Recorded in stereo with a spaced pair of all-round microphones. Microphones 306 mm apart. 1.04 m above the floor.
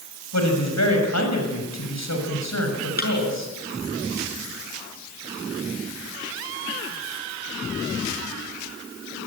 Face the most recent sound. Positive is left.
turn(degrees=30)  # may be behind; listen again after turning